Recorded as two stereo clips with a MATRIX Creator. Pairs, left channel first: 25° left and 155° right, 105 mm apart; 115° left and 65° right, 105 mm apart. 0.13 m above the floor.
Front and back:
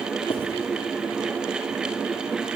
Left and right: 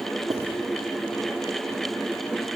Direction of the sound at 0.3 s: 10° right.